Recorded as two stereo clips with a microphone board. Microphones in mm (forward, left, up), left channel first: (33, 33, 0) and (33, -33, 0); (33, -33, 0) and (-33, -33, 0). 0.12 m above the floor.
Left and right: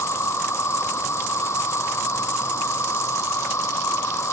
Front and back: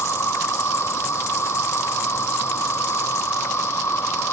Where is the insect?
45° left.